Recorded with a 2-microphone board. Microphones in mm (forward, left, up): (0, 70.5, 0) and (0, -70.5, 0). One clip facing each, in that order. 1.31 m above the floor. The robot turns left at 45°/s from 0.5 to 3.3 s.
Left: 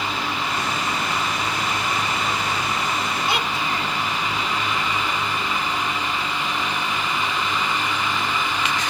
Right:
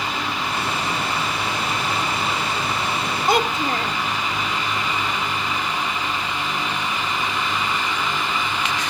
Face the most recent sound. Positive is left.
turn(degrees=-50)  # may be behind; listen again after turning